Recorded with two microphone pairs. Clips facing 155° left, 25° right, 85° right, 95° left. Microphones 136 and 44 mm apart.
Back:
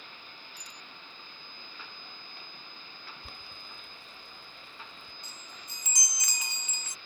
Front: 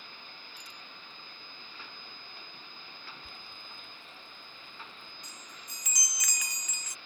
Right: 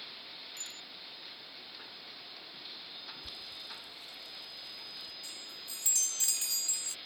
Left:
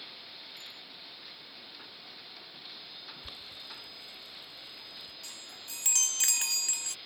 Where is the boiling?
145° left.